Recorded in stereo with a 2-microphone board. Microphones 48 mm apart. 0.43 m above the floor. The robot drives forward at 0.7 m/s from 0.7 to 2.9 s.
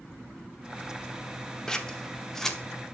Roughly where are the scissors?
Centre.